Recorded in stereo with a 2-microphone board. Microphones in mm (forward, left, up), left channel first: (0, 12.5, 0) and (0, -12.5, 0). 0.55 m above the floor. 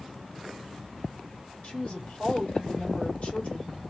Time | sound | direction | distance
1.6 | a woman speaking | 50° left (ahead or behind) | 2 m